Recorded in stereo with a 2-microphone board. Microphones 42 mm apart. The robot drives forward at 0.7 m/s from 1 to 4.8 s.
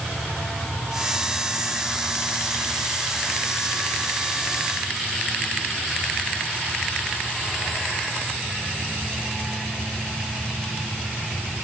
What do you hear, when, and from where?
Only background noise.